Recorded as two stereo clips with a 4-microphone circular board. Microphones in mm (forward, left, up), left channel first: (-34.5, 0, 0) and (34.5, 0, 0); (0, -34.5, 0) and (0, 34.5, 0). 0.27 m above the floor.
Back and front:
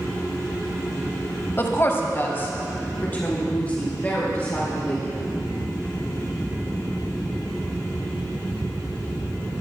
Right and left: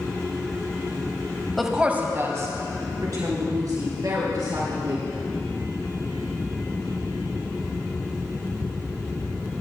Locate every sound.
1.6 s a woman speaking: 175° right, 1.1 m; by 5.0 s 110° left, 5.5 m